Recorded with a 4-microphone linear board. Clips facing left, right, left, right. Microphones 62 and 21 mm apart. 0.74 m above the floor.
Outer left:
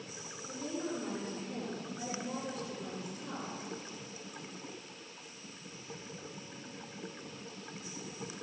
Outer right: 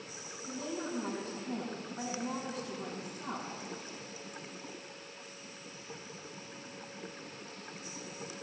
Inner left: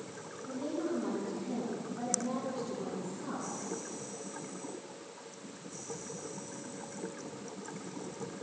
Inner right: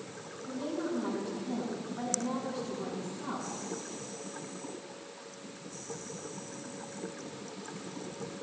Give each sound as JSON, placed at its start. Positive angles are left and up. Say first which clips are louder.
{"t": 0.5, "sound": "a woman speaking", "louder": "even, inner right 1 dB", "side_deg": -50, "distance_m": 5.0}